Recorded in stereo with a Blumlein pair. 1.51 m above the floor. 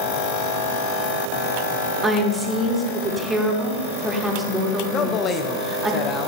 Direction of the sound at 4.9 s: 25° left.